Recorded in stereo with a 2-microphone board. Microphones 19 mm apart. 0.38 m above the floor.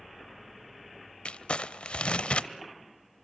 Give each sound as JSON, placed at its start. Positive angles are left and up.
{"t": 1.2, "sound": "crumpling", "side_deg": 65, "distance_m": 0.6}